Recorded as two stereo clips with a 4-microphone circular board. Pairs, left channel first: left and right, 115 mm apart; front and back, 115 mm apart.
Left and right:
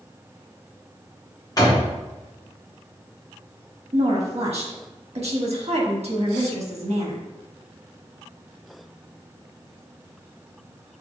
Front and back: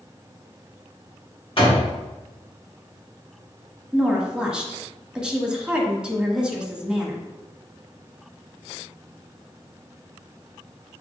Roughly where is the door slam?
Ahead left.